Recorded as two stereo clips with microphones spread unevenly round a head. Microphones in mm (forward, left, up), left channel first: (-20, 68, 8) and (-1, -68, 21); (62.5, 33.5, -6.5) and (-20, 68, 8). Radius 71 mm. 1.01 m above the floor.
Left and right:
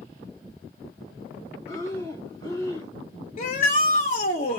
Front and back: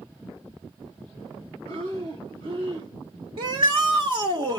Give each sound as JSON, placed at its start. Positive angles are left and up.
{"t": 1.7, "sound": "breathing", "azimuth_deg": 170, "distance_m": 4.5}
{"t": 3.4, "sound": "a shout", "azimuth_deg": 130, "distance_m": 1.6}